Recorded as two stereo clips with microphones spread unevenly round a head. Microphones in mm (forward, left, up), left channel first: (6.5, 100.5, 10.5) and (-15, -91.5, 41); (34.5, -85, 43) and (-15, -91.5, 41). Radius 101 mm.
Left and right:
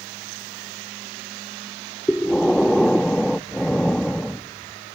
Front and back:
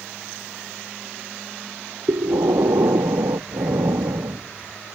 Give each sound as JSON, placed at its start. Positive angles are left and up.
{"t": 2.1, "sound": "breathing", "azimuth_deg": 170}